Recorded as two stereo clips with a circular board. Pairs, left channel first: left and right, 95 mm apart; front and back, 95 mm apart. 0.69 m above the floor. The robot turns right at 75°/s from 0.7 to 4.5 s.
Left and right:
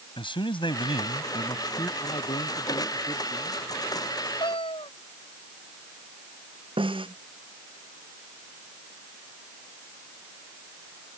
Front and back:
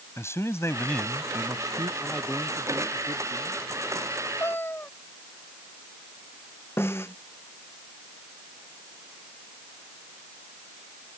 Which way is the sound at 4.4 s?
60° left.